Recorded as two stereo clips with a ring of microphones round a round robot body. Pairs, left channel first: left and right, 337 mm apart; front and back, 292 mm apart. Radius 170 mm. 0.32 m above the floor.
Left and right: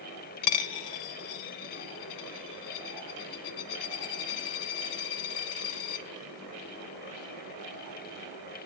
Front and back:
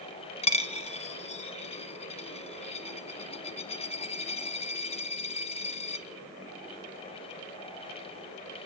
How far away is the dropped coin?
About 0.8 m.